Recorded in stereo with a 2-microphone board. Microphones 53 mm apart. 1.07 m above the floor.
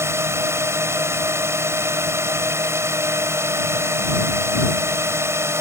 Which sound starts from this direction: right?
A drone, at 0.0 s.